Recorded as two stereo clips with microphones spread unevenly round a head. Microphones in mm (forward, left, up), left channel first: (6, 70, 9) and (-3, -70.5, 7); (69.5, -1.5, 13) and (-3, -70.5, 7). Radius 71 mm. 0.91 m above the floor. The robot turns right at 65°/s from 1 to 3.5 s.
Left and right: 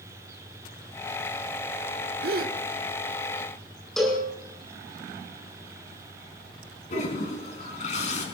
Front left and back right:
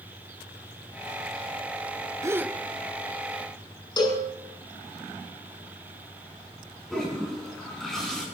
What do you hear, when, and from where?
2.2 s a gasp: 75° right, 1.3 m; by 2.6 s 55° right, 1.3 m
4.0 s a cowbell: straight ahead, 7.5 m
6.9 s a toilet flushing: 130° left, 4 m